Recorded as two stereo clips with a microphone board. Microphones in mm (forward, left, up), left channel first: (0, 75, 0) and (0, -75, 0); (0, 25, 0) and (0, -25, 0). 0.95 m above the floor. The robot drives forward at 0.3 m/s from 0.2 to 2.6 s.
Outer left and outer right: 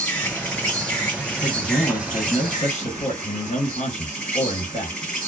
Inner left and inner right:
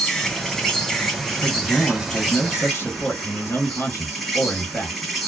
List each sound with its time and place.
0.0 s an insect: 10° left (ahead or behind), 0.9 m; by 5.3 s 5° left (ahead or behind), 1.6 m
1.4 s a man speaking: 50° left (ahead or behind), 1.3 m; by 5.0 s 45° left (ahead or behind), 1.4 m